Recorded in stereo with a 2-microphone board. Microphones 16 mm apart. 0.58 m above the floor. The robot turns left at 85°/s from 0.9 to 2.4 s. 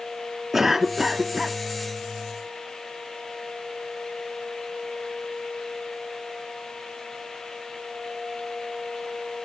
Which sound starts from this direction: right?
A cough, at 0.5 s.